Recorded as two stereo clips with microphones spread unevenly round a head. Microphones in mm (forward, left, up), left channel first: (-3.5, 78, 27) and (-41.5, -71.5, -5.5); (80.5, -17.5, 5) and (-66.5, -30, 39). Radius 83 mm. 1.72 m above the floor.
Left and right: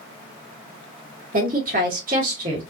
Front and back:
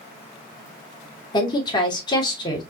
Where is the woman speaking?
60° right, 2.5 m.